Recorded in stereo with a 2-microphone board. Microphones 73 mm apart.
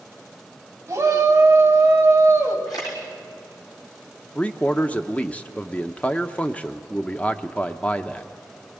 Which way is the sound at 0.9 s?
40° right (ahead or behind).